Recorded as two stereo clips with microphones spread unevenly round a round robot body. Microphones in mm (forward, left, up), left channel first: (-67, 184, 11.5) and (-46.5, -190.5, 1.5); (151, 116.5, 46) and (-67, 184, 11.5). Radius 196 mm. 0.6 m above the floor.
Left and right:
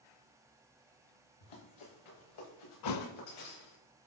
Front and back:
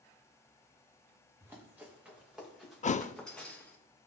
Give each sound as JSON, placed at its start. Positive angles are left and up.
{"t": 1.4, "sound": "running footsteps", "azimuth_deg": 80, "distance_m": 5.5}
{"t": 2.8, "sound": "a thud", "azimuth_deg": 45, "distance_m": 0.6}